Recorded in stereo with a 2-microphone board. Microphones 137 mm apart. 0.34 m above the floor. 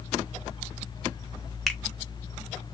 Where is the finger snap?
5° left (ahead or behind), 0.7 m.